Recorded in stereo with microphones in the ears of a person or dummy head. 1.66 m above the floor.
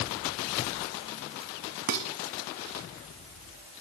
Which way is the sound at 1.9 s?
45° right (ahead or behind).